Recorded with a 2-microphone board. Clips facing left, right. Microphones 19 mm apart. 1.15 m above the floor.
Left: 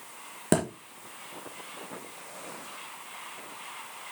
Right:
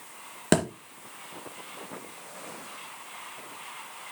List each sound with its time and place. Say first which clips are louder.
0.5 s a thud: right 2 dB; 30° right (ahead or behind), 2.5 m